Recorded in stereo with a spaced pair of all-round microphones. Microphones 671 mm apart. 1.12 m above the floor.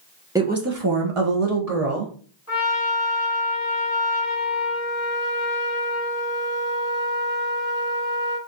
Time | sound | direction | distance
0.3 | a woman speaking | 5° right (ahead or behind) | 0.9 m
2.5 | a trumpet | 25° left (ahead or behind) | 2.0 m